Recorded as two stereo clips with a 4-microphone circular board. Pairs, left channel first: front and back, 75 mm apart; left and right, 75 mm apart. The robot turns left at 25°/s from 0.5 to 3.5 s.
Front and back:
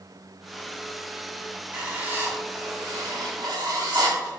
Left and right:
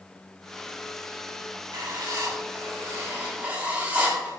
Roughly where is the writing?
Behind right.